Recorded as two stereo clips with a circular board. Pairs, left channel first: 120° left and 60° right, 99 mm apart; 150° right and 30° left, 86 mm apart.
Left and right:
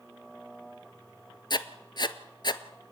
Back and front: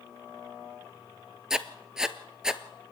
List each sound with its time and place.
1.5 s writing: 110° left, 0.8 m